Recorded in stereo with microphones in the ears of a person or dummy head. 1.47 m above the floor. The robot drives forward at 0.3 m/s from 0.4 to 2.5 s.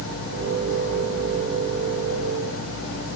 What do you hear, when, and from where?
Only background noise.